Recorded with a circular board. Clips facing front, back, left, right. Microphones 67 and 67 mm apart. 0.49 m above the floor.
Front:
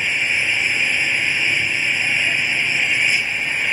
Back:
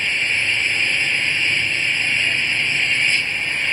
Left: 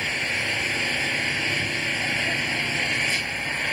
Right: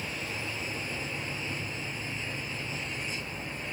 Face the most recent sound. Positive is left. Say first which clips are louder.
# front 1 dB, left 9 dB
turn(degrees=75)